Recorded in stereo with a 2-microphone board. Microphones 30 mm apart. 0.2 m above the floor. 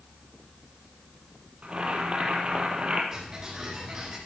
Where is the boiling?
35° right (ahead or behind), 4 m.